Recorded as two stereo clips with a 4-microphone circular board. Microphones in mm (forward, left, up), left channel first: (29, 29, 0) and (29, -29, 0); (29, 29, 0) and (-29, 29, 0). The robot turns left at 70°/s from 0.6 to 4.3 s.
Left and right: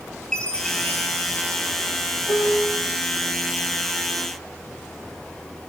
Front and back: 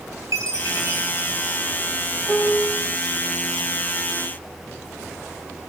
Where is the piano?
90° left, 10 m; by 2.8 s 50° left, 10 m.